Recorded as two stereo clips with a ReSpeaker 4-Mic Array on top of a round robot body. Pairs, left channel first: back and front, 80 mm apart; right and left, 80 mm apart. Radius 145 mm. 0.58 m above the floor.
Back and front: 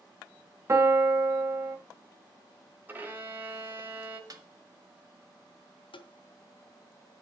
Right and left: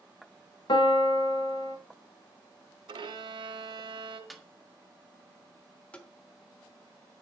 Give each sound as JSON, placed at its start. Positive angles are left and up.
{"t": 0.7, "sound": "a piano", "azimuth_deg": -60, "distance_m": 1.1}
{"t": 2.9, "sound": "a violin", "azimuth_deg": 65, "distance_m": 1.2}
{"t": 4.3, "sound": "a snare drum", "azimuth_deg": 0, "distance_m": 1.7}
{"t": 5.9, "sound": "tapping", "azimuth_deg": -165, "distance_m": 1.0}